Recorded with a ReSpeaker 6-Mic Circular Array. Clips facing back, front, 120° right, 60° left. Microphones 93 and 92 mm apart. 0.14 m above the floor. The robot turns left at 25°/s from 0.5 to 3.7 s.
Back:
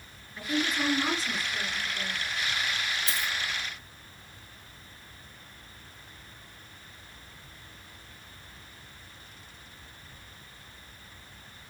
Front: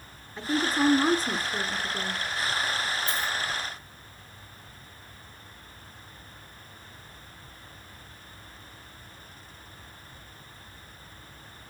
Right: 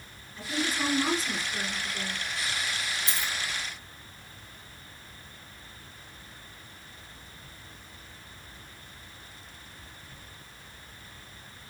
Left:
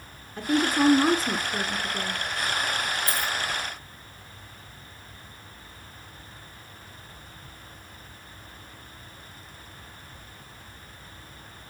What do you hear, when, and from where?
0.4 s a woman speaking: 60° left, 2.0 m; by 2.2 s 15° left, 2.0 m
3.1 s a dropped coin: 175° left, 2.5 m; by 3.3 s 165° left, 2.5 m